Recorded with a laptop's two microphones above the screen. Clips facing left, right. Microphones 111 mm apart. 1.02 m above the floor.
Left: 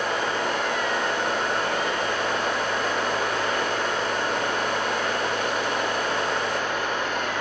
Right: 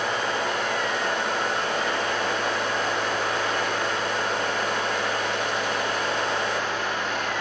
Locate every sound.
0.0 s a fan: 50° left (ahead or behind), 6 m